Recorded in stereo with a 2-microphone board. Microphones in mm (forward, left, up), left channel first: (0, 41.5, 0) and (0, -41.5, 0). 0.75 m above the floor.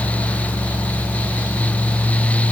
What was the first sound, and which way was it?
Only background noise.